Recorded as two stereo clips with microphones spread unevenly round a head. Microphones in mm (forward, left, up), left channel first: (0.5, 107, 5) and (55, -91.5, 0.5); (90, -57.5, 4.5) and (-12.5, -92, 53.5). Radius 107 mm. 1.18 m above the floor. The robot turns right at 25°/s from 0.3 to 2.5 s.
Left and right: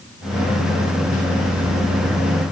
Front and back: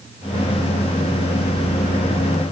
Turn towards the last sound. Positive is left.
No sound to turn to.